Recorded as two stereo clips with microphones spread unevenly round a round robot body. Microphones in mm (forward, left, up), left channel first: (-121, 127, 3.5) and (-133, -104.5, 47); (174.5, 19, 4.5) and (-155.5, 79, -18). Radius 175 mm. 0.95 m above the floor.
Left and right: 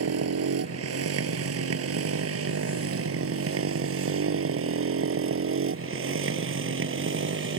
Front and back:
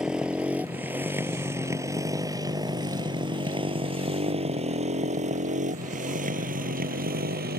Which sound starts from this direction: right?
A motorcycle, at 0.0 s.